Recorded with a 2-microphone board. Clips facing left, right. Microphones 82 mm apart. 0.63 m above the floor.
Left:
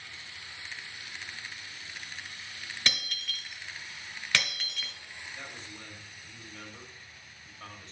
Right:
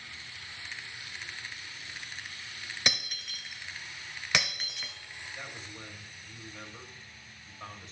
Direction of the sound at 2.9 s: 15° right (ahead or behind).